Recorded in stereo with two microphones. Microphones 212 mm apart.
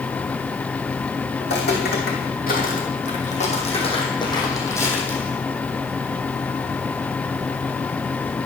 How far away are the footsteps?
About 4.5 m.